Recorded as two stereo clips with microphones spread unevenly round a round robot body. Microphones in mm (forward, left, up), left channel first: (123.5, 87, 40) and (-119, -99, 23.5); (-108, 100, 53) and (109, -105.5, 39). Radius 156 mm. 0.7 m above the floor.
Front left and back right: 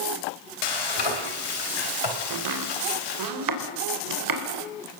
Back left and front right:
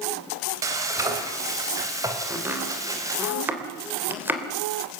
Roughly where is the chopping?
Behind right.